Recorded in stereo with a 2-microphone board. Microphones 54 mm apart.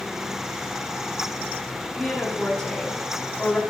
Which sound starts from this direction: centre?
A woman speaking, at 1.9 s.